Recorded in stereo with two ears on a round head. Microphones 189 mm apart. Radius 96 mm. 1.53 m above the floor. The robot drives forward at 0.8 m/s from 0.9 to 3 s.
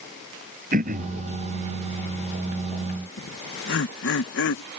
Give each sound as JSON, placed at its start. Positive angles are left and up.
{"t": 0.7, "sound": "throat clearing", "side_deg": -40}
{"t": 3.2, "sound": "laughter", "side_deg": 50}